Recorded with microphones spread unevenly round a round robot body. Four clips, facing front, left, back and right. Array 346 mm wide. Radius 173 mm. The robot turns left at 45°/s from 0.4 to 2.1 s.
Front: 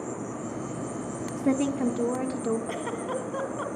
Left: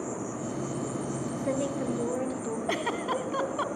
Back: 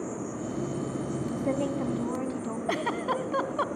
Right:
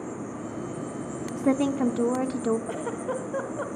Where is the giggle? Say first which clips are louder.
Left 1 dB, back 2 dB; 140° left, 1.7 m.